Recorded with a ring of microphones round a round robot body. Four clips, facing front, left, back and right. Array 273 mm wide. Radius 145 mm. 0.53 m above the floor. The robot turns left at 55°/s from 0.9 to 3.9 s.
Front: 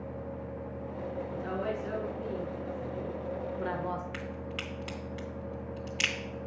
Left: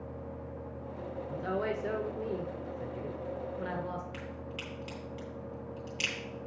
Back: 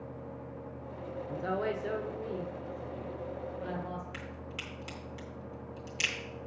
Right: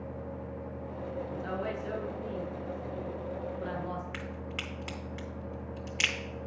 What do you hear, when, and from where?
1.3 s a woman speaking: 155° left, 1.5 m; by 4.0 s 10° left, 1.5 m
4.1 s a crack: 60° right, 2.5 m